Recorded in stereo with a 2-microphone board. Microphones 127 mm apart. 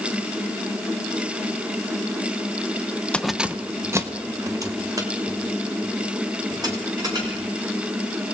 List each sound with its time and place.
3.1 s keys jangling: 10° left (ahead or behind), 0.5 m; by 7.4 s 30° right (ahead or behind), 5 m